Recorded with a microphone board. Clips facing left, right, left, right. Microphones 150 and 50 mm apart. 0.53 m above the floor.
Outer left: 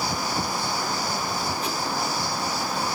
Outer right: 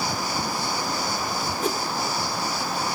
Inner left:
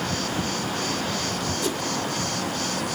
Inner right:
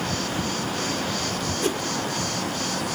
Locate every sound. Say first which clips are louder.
1.6 s a whoosh: outer right 4 dB, inner right 4 dB; 45° right (ahead or behind), 1.8 m